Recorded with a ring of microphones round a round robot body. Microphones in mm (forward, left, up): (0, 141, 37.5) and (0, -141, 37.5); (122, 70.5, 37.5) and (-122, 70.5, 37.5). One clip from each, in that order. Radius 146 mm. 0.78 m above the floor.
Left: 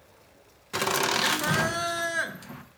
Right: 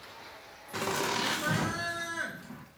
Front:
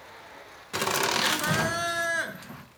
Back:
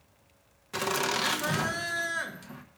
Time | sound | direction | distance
0.7 | laughter | 75° left | 0.9 m